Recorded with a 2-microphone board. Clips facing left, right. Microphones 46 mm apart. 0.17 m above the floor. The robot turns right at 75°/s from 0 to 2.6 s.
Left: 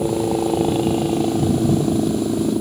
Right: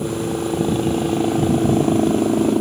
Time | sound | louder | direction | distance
0.0 | a helicopter | left 3 dB | 65° left (ahead or behind) | ?